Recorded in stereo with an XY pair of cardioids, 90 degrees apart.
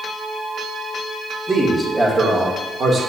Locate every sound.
1.5 s a man speaking: 25° right, 2 m; by 3.0 s 55° right, 2.5 m